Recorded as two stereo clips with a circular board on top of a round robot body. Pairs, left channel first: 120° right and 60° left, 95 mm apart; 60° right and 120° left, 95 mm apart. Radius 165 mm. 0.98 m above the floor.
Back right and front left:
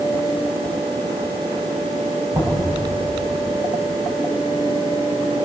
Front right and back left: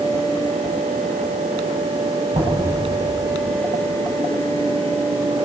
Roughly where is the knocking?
Behind left.